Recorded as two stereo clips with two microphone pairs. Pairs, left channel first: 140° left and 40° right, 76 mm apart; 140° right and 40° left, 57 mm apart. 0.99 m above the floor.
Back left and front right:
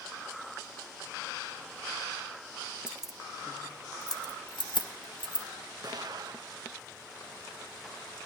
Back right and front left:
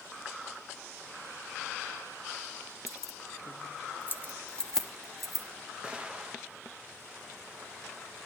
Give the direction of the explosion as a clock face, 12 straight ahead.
1 o'clock.